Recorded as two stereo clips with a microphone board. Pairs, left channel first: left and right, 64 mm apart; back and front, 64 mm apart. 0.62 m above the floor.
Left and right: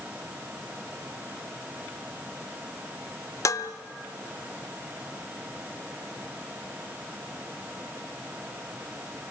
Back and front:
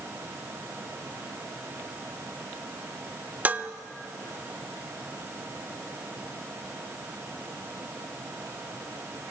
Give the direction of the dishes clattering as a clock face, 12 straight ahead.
10 o'clock.